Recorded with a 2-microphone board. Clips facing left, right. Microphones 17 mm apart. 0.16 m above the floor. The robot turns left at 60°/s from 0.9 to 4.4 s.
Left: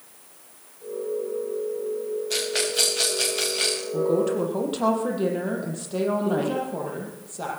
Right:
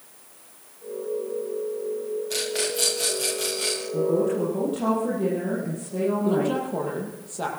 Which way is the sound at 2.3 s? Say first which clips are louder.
Left 3 dB; 20° left (ahead or behind).